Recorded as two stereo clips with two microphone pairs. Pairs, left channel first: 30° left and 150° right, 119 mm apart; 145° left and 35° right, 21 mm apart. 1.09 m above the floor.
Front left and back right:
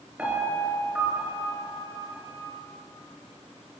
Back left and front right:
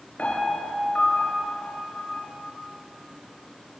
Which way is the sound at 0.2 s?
130° left.